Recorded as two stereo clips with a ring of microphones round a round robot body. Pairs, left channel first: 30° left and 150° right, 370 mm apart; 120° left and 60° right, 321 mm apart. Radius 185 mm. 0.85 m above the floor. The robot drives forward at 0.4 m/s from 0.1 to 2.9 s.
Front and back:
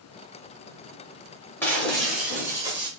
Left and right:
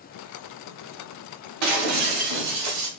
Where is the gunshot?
No gunshot in this recording.